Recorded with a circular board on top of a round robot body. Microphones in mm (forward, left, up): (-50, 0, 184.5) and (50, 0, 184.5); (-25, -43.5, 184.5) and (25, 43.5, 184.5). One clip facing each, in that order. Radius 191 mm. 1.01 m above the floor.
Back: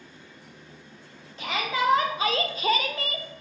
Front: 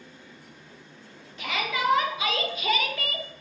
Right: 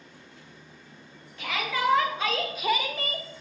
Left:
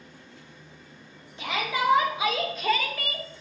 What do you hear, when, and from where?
1.4 s a shout: 125° left, 1.3 m; by 3.3 s 120° right, 0.7 m